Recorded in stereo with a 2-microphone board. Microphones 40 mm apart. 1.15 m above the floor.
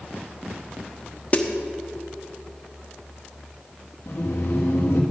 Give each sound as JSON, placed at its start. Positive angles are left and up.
{"t": 1.3, "sound": "a snare drum", "side_deg": 35, "distance_m": 1.1}
{"t": 4.1, "sound": "laughter", "side_deg": 75, "distance_m": 1.8}